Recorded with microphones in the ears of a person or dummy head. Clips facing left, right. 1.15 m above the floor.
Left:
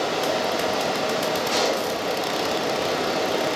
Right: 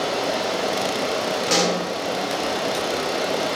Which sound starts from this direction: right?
A pop, at 1.5 s.